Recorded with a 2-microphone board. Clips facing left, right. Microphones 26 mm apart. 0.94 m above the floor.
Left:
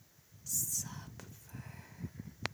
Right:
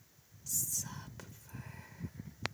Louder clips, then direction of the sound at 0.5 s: Even; 5° left (ahead or behind).